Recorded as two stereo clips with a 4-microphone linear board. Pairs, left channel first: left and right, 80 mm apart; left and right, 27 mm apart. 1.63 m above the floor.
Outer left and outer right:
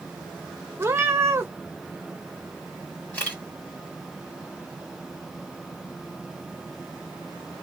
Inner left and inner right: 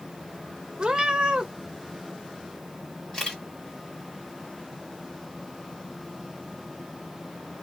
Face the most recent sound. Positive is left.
turn(degrees=20)  # may be behind; listen again after turning